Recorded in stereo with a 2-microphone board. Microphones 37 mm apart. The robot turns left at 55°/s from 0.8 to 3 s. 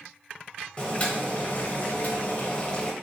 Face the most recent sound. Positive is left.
turn(degrees=20)